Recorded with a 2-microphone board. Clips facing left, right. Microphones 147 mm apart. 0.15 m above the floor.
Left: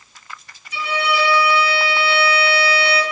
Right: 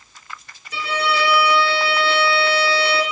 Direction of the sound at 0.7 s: 55° right (ahead or behind).